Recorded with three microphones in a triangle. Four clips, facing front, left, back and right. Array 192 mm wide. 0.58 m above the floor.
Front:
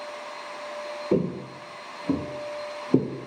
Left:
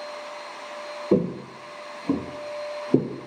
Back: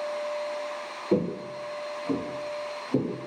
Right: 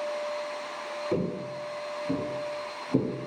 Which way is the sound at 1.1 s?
80° left.